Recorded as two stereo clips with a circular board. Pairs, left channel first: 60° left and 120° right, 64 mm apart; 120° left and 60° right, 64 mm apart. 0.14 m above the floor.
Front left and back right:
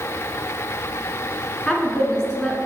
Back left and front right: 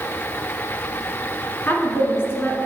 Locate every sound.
1.7 s a woman speaking: 135° left, 1.7 m